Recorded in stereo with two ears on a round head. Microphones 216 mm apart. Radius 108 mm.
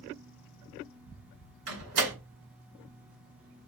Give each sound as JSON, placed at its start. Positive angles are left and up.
{"t": 1.7, "sound": "a door slam", "side_deg": -65, "distance_m": 2.0}